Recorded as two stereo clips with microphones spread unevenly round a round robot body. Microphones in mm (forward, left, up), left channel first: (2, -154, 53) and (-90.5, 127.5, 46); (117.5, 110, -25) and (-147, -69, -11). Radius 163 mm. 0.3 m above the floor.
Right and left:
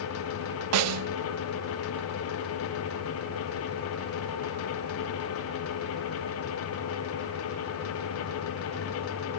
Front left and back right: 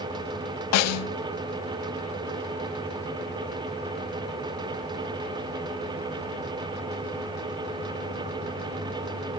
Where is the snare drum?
75° left, 0.5 m.